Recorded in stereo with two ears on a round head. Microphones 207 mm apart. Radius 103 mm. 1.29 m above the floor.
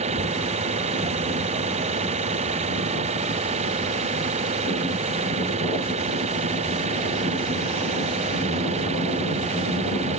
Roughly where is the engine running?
Right.